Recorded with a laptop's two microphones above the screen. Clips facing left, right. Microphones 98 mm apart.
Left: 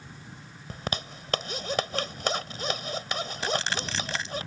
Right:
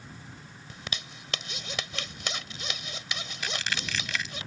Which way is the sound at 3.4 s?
35° left (ahead or behind).